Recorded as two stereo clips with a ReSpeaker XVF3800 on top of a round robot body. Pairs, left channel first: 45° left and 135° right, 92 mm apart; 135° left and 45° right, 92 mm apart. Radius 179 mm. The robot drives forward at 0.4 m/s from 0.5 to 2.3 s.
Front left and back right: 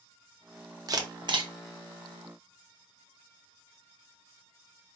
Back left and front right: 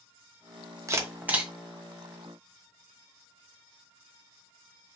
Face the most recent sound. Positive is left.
turn(degrees=-145)